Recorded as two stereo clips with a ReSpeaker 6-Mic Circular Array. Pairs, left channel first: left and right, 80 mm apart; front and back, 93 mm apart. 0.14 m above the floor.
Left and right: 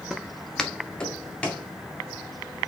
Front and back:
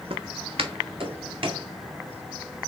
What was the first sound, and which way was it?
Footsteps, 175° right.